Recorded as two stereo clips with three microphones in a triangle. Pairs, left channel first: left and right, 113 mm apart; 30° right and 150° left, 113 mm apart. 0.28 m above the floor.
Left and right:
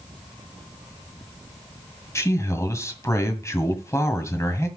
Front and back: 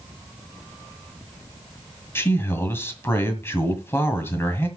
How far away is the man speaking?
About 1.8 m.